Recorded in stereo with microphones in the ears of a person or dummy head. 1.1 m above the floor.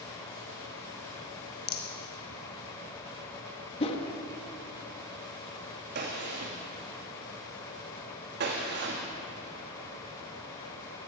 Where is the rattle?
45° left (ahead or behind), 0.9 m.